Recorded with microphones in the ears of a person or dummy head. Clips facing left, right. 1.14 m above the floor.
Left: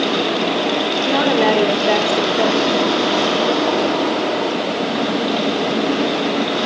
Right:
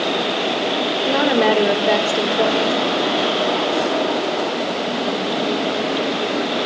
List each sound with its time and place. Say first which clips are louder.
0.0 s a machine running: left 3 dB; 60° left (ahead or behind), 8 m
1.1 s a woman speaking: even; centre (ahead or behind), 3.5 m